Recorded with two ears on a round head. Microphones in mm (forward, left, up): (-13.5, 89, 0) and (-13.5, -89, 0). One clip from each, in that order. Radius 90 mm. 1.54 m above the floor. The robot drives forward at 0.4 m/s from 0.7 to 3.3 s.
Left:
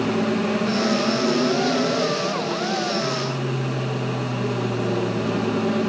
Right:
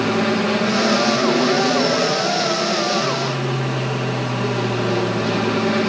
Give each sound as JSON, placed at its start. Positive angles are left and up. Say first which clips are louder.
{"t": 0.0, "sound": "an aircraft", "louder": "right 4 dB", "side_deg": -60}